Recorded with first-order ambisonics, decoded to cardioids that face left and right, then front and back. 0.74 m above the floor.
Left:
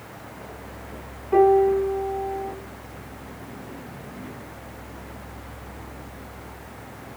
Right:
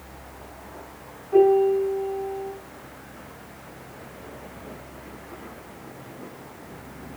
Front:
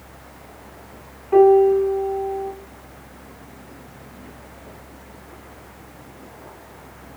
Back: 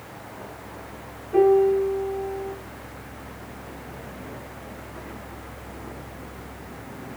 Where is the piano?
40° left, 6.5 m.